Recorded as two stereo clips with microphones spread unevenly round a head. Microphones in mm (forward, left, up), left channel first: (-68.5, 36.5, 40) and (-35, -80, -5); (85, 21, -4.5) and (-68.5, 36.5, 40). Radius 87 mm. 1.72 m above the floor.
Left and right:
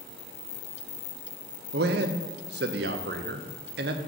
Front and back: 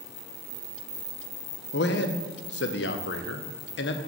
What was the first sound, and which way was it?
A man speaking, 45° right.